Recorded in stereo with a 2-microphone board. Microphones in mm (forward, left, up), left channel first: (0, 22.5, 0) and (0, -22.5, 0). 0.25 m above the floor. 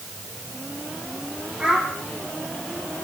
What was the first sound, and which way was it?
A child speaking, 20° right (ahead or behind).